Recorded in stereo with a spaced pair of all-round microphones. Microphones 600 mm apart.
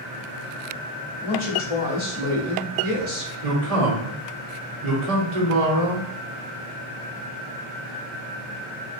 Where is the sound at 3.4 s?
75° right (ahead or behind), 1.5 m.